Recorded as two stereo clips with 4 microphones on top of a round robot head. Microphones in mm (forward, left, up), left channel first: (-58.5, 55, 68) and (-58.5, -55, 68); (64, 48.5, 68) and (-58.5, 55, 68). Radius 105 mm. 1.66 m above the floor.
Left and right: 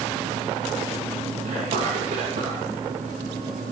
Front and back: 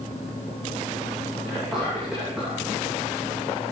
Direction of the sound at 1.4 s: 100° right.